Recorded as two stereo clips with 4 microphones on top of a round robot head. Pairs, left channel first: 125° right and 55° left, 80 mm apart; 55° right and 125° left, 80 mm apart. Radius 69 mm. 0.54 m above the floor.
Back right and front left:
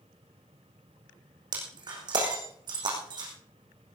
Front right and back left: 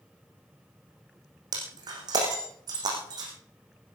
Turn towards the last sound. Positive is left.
turn(degrees=85)